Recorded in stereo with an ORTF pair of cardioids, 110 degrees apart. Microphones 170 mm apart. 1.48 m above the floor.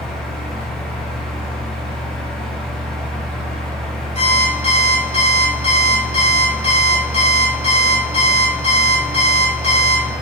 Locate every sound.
0.0 s a fan: 5° left, 2.5 m
4.2 s an alarm clock: 40° left, 4 m